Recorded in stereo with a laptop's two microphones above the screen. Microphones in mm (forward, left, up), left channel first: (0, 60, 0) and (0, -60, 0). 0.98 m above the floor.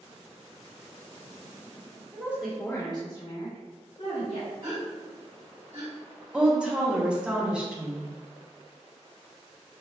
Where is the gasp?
80° right, 2.0 m.